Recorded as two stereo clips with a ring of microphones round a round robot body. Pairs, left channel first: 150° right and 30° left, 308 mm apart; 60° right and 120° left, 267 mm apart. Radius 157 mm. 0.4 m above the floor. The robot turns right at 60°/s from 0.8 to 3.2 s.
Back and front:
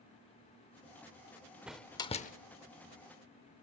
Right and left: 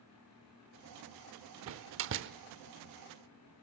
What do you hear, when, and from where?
1.7 s a door slam: 115° left, 0.7 m; by 2.3 s 155° left, 0.7 m